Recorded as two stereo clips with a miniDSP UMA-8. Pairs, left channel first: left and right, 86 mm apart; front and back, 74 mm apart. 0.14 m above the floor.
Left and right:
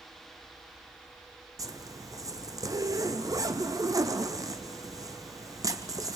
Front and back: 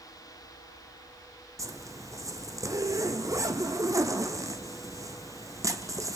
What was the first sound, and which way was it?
A zipper, 135° right.